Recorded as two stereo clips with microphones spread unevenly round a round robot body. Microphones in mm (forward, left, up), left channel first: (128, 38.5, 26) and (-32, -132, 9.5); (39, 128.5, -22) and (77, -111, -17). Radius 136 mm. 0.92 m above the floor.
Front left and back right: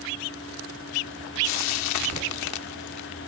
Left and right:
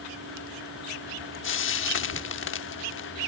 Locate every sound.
1.4 s frying: 60° left, 1.0 m